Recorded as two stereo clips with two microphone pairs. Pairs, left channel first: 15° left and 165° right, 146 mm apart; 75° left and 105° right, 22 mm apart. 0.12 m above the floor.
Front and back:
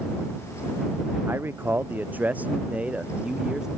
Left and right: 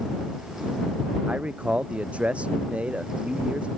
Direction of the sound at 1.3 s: 90° right.